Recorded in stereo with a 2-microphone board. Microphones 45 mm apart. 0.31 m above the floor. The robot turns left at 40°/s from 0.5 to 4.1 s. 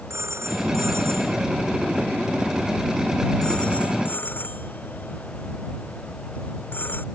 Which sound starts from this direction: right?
A phone ringing, at 0.1 s.